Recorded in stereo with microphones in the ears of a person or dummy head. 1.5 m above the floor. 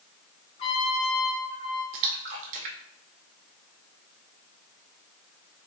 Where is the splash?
45° right (ahead or behind), 0.6 m.